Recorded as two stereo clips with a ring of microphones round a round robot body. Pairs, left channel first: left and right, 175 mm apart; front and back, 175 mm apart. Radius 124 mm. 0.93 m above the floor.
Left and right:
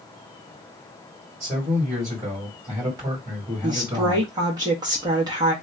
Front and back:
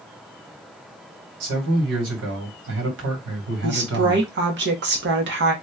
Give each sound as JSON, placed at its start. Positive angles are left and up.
{"t": 1.4, "sound": "a man speaking", "azimuth_deg": -170, "distance_m": 2.5}
{"t": 3.6, "sound": "a woman speaking", "azimuth_deg": -160, "distance_m": 1.4}